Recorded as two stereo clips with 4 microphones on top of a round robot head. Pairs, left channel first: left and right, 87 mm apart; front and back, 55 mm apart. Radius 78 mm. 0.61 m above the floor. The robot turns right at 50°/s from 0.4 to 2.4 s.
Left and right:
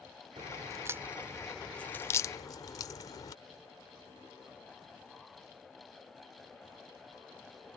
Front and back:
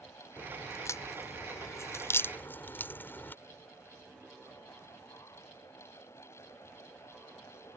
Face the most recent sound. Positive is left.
turn(degrees=45)